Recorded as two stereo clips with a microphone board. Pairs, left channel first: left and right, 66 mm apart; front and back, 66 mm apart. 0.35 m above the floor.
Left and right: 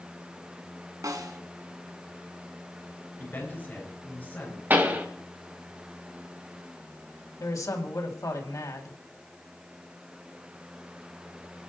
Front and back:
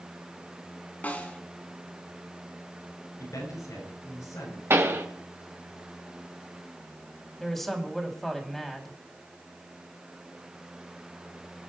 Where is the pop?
140° right, 2 m.